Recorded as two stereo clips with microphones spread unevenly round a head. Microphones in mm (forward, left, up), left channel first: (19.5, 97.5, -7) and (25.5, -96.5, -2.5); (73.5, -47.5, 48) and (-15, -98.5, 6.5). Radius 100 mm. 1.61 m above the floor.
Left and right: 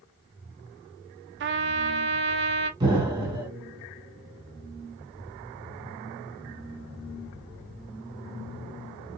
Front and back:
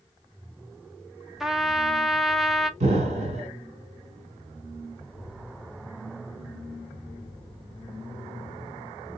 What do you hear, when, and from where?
1.4 s a trumpet: 55° right, 0.6 m
2.8 s an explosion: 145° right, 1.7 m